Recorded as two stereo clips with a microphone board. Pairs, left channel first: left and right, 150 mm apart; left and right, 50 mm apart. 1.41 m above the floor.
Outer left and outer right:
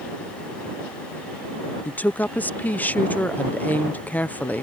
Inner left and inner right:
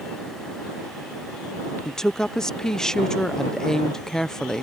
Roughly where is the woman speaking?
Centre.